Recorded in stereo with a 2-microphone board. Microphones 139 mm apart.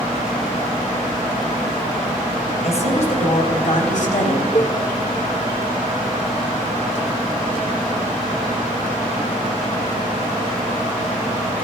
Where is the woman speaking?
50° left (ahead or behind), 4.5 m; by 4.5 s 70° left (ahead or behind), 4.5 m.